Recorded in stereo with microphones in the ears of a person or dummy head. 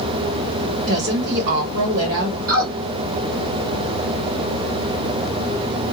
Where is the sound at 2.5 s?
50° right (ahead or behind), 1.5 m.